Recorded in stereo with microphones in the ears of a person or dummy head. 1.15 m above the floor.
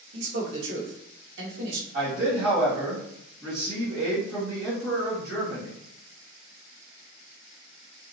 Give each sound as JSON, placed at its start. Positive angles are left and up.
{"t": 0.1, "sound": "a man speaking", "side_deg": -75, "distance_m": 1.0}
{"t": 1.9, "sound": "a man speaking", "side_deg": -45, "distance_m": 1.4}